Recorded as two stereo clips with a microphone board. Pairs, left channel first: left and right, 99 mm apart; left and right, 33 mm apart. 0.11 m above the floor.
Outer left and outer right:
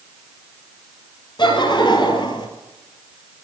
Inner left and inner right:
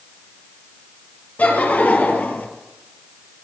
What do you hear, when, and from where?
1.4 s laughter: 50° left (ahead or behind), 2.5 m